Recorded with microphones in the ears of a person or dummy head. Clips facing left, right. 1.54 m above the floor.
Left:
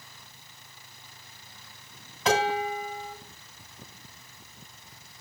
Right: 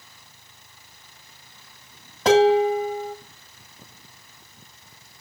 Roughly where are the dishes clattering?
Right.